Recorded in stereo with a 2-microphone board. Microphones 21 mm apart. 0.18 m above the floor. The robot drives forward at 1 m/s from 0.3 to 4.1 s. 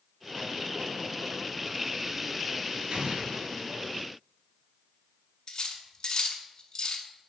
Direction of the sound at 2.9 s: 50° right (ahead or behind).